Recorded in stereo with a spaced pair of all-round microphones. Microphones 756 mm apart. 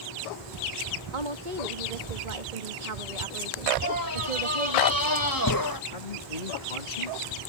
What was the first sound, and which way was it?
A woman speaking, 85° right.